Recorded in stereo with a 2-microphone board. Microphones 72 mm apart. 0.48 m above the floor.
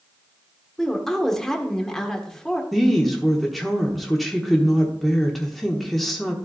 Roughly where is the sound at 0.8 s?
Centre.